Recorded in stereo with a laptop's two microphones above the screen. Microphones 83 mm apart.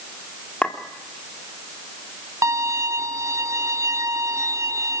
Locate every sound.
0.6 s a clink: 15° left (ahead or behind), 2 m
2.4 s a violin: 40° right (ahead or behind), 3 m